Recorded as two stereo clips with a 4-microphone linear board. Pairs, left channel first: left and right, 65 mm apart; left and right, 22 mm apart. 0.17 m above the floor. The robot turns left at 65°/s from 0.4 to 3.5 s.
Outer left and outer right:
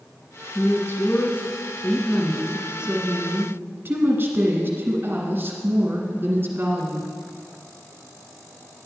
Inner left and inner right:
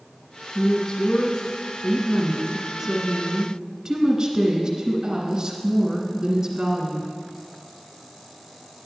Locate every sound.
0.6 s a woman speaking: 125° left, 1.6 m; by 7.1 s 70° right, 1.6 m